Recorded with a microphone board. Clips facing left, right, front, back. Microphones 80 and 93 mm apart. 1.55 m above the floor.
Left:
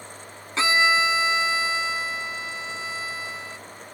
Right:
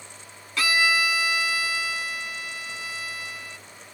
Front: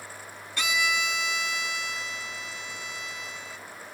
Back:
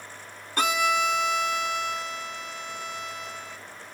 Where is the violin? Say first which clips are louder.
Left 3 dB, back 5 dB; 150° left.